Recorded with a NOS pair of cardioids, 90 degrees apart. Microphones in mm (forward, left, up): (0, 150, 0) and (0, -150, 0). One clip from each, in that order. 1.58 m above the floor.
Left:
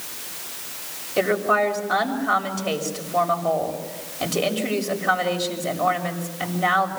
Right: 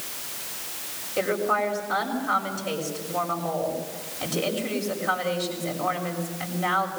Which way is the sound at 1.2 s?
35° left.